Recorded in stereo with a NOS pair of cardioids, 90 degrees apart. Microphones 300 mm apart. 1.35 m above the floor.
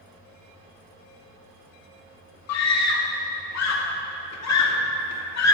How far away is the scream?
About 3 m.